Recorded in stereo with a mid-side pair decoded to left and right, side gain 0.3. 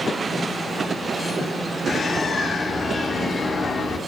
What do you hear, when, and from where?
1.9 s a bird: 60° left, 1.8 m